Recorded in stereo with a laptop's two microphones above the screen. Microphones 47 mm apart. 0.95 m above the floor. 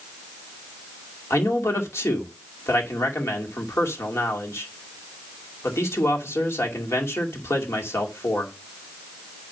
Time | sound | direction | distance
1.3 | a man speaking | 80° left | 2.5 m